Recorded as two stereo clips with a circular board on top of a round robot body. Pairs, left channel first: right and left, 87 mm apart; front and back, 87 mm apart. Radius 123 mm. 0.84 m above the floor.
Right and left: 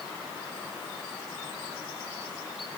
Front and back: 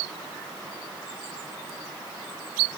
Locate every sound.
Only background noise.